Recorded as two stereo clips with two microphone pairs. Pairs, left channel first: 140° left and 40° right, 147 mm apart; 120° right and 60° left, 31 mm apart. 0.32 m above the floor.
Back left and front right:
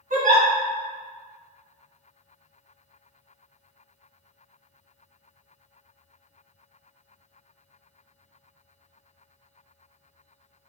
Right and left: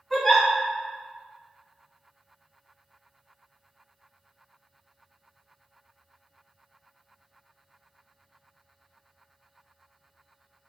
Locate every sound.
0.1 s a giggle: 40° right, 1.4 m